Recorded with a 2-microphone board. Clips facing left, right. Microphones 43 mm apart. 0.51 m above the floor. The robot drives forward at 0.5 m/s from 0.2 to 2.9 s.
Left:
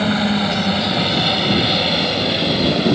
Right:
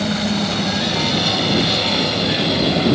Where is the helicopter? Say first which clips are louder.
Left 2 dB; 25° left (ahead or behind); by 3.0 s 5° left (ahead or behind).